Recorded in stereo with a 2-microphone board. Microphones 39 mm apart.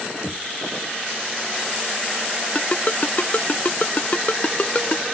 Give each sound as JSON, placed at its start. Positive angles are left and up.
{"t": 0.2, "sound": "knocking", "side_deg": -15}
{"t": 2.5, "sound": "a ringtone", "side_deg": 40}